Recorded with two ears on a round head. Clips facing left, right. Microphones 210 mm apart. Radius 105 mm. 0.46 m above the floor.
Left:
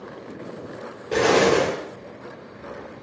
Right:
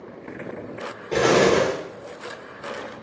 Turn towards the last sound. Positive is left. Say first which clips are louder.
# even
turn(degrees=10)  # may be behind; listen again after turning